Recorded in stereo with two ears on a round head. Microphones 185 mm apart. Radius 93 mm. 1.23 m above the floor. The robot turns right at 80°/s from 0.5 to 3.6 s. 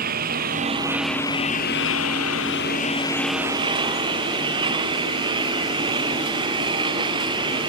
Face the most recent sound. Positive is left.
turn(degrees=-155)